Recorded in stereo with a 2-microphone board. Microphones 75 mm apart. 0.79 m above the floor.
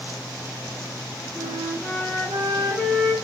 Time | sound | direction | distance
1.4 | a flute | 15° left (ahead or behind) | 4 m